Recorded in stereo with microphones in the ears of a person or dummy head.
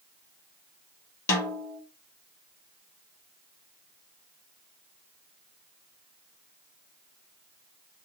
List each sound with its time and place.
1.3 s a snare drum: 20° left (ahead or behind), 1.0 m